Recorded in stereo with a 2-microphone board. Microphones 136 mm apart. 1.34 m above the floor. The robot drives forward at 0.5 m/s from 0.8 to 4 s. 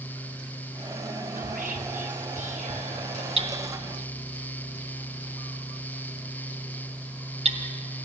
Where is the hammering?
45° right (ahead or behind), 1.7 m; by 7.7 s 50° right (ahead or behind), 1.6 m.